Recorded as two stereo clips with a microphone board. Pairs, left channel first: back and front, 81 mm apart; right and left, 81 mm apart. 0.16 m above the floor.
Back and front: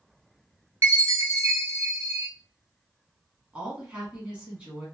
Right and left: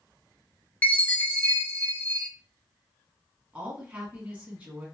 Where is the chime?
35° right, 0.6 m.